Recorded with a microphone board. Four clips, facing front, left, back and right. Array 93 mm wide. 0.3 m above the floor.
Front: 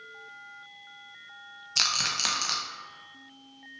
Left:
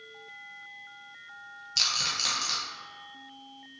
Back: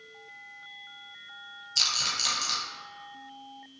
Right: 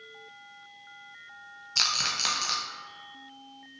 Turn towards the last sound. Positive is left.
turn(degrees=-35)